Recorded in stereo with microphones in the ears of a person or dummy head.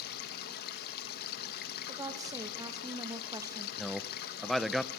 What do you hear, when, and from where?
0.0 s running water: 50° left (ahead or behind), 1.7 m
1.9 s a woman speaking: 15° right (ahead or behind), 1.9 m
3.8 s a man speaking: centre (ahead or behind), 0.8 m